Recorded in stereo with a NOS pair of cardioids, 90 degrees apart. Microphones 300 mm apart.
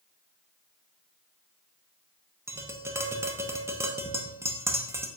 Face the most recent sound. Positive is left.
turn(degrees=-10)